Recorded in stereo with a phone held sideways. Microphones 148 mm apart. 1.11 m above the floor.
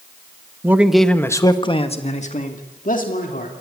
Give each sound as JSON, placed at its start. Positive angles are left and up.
{"t": 0.6, "sound": "a man speaking", "side_deg": -15, "distance_m": 1.3}